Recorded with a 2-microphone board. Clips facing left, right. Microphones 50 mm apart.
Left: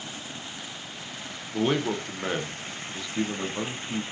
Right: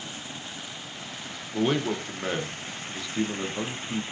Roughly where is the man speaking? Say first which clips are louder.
Even; centre.